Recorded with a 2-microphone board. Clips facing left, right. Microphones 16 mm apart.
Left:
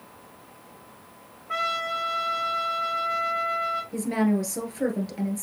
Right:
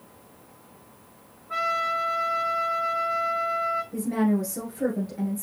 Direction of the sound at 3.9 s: 40° left (ahead or behind).